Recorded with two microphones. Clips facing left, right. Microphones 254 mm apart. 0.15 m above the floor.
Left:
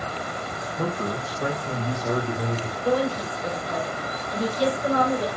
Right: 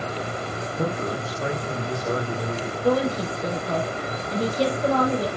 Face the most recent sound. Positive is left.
turn(degrees=-70)  # may be behind; listen again after turning